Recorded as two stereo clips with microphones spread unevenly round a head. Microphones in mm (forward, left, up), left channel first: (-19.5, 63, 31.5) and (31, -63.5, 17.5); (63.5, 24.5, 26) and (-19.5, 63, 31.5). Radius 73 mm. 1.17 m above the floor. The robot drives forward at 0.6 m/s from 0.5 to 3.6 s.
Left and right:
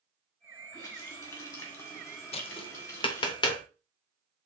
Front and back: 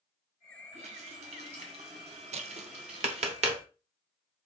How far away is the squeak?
No squeak in this recording.